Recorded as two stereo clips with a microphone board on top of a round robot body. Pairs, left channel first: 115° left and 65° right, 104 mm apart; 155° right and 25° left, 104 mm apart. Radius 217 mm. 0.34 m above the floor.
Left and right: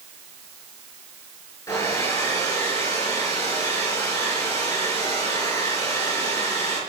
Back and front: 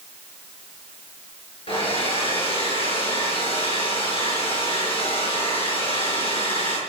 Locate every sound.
1.7 s a hair dryer: 170° left, 7 m